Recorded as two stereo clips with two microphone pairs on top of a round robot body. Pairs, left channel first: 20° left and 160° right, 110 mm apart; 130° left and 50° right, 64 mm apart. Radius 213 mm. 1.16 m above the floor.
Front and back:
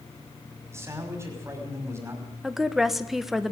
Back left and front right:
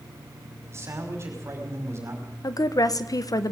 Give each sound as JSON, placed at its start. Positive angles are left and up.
{"t": 0.7, "sound": "a man speaking", "azimuth_deg": -95, "distance_m": 5.5}
{"t": 2.4, "sound": "a woman speaking", "azimuth_deg": 115, "distance_m": 1.7}